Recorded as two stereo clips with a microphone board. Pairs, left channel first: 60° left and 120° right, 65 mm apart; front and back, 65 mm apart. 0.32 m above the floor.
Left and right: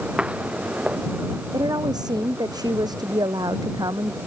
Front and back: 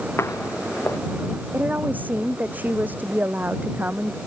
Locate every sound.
0.2 s footsteps: 45° right
1.5 s a woman speaking: 115° right